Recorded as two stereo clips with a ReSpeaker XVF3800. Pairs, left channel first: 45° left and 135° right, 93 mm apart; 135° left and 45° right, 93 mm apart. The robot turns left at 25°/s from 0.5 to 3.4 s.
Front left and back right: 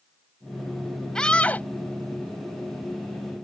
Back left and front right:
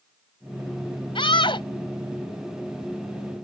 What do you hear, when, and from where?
1.1 s a scream: 130° left; by 1.7 s 115° left